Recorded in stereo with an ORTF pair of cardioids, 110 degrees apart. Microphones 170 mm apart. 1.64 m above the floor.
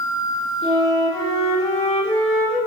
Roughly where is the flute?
Ahead left.